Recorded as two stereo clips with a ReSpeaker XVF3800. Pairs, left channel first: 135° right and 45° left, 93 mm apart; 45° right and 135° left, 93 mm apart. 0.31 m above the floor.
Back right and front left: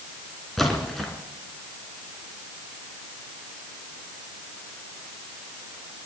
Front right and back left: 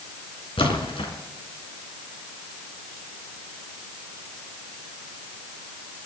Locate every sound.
0.6 s a splash: 45° right, 3 m